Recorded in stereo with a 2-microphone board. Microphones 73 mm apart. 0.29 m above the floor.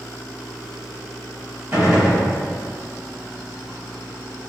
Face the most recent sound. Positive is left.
turn(degrees=-25)  # may be behind; listen again after turning